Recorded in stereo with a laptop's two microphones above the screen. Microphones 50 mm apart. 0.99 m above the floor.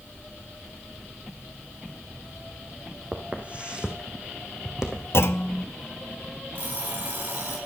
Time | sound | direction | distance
3.1 | footsteps | 30° right (ahead or behind) | 2 m
5.1 | a clunk | 55° left (ahead or behind) | 0.7 m
6.5 | an alarm clock | 50° right (ahead or behind) | 3.5 m